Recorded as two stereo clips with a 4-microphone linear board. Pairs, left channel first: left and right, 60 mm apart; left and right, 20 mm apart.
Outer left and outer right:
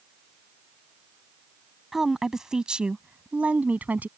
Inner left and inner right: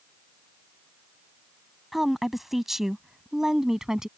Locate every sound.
1.9 s a woman speaking: 5° right (ahead or behind); by 4.1 s 30° right (ahead or behind)